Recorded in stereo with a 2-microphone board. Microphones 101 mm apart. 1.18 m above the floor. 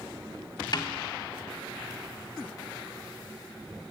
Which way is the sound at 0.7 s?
50° left (ahead or behind).